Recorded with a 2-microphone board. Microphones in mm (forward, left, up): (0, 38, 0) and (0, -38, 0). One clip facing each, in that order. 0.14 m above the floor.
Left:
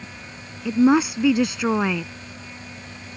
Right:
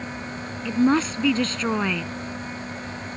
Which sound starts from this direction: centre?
A woman speaking, at 0.7 s.